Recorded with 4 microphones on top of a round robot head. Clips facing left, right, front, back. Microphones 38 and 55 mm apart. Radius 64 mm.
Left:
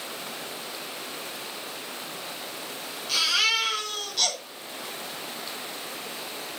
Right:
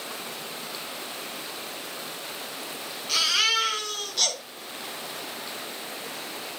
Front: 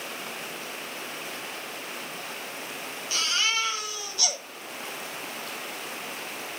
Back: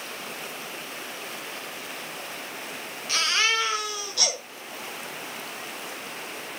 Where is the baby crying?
Straight behind, 6 m.